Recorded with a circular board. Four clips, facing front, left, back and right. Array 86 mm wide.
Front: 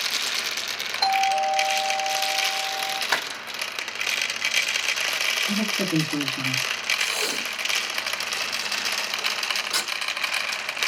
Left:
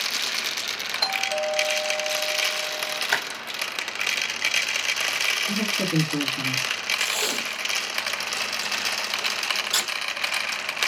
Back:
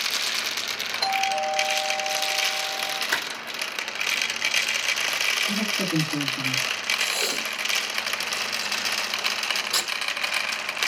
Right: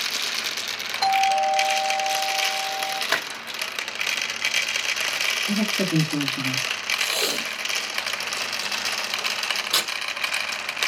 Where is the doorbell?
95° right, 6 m.